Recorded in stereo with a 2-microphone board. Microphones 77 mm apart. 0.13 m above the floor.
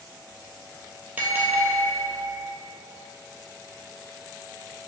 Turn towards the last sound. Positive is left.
turn(degrees=-20)  # may be behind; listen again after turning